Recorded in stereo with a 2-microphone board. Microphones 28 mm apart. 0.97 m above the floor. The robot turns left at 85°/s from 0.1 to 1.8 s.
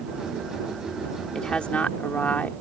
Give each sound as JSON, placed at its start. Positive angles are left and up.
{"t": 1.3, "sound": "a woman speaking", "azimuth_deg": 155}